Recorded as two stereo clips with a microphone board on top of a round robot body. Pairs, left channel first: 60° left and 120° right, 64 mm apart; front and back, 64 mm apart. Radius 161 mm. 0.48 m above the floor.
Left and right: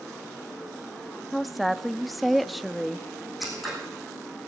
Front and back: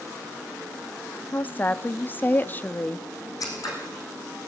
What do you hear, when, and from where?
1.3 s a woman speaking: 30° right, 1.3 m
3.4 s scissors: 30° right, 6.5 m